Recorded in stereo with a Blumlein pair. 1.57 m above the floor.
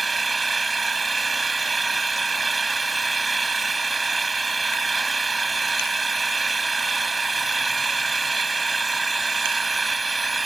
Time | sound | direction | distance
0.0 | an engine running | 10° right | ?